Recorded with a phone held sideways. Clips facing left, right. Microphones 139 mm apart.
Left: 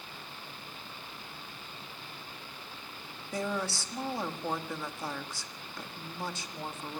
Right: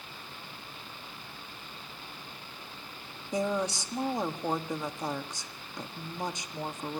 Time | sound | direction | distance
3.3 | a woman speaking | 20° right (ahead or behind) | 1.5 m